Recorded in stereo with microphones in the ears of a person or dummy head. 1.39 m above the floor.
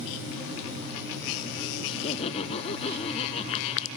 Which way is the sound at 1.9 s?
40° left (ahead or behind).